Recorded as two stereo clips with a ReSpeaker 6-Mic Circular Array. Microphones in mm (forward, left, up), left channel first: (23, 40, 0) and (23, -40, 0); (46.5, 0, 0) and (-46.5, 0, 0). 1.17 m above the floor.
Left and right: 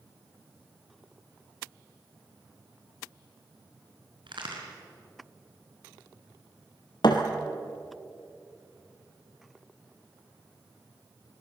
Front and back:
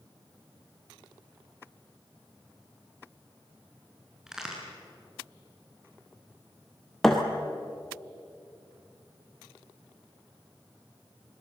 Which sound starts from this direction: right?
A crack, at 4.3 s.